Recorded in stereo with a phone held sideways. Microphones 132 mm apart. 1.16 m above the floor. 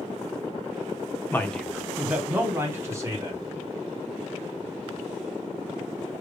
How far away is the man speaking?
About 0.7 m.